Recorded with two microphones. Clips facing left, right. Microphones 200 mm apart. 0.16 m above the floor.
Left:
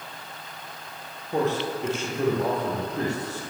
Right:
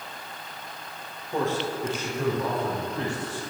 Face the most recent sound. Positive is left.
turn(degrees=45)  # may be behind; listen again after turning